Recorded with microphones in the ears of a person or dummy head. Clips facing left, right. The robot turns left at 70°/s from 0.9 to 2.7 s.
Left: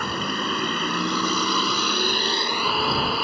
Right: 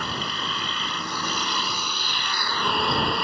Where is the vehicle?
130° left; by 3.2 s 5° left.